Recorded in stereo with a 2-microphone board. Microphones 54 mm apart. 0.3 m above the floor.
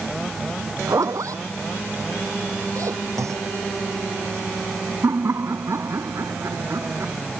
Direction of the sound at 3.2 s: 70° right (ahead or behind).